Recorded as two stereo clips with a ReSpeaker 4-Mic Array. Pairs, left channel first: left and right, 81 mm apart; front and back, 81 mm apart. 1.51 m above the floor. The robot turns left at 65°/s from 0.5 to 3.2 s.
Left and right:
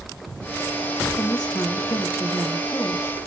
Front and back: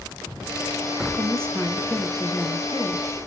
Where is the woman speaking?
135° left, 2.5 m; by 3.3 s 5° left, 2.5 m.